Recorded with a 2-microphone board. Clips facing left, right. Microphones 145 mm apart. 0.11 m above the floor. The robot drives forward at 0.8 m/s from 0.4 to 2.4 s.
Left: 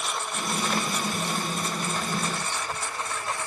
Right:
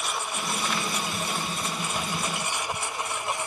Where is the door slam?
No door slam in this recording.